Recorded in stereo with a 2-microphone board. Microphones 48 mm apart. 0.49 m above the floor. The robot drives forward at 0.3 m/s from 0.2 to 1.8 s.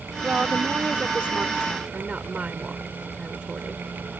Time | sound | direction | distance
0.2 | a woman speaking | 30° right (ahead or behind) | ?